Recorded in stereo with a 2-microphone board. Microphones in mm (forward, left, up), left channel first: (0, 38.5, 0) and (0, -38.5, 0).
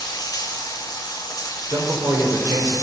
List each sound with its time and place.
0.0 s running water: 60° left (ahead or behind), 1.4 m
1.7 s a man speaking: 45° right (ahead or behind), 3 m